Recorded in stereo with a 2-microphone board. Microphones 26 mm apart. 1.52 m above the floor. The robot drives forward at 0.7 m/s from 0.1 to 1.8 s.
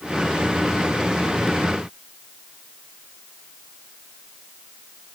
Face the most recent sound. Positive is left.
No sound to turn to.